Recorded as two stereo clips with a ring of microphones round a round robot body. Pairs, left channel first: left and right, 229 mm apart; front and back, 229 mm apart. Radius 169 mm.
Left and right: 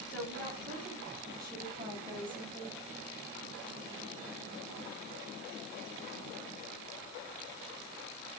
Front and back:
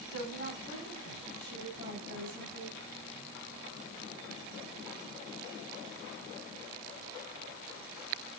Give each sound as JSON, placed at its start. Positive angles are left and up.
{"t": 0.1, "sound": "a woman speaking", "azimuth_deg": -45, "distance_m": 4.0}